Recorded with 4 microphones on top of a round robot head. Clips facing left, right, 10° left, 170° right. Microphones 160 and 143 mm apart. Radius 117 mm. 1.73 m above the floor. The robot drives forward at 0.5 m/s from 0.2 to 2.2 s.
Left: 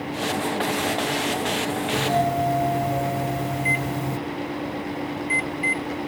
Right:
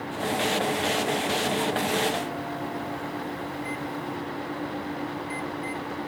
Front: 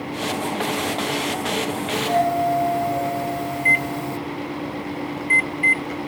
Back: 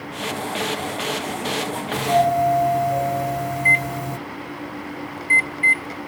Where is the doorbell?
120° left.